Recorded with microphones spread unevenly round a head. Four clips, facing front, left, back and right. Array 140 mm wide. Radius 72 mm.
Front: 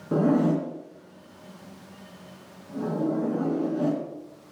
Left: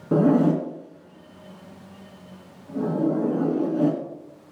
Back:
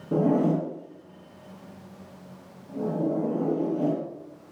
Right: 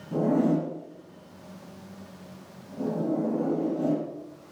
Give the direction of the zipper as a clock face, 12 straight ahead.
10 o'clock.